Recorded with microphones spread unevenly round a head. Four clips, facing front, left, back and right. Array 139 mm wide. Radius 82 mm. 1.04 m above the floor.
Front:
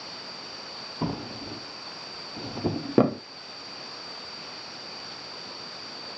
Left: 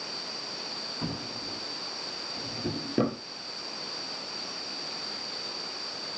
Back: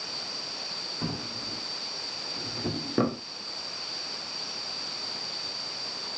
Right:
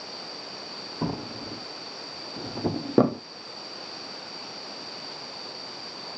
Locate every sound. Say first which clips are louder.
1.0 s a drawer: right 6 dB, front 4 dB; 70° right, 1.0 m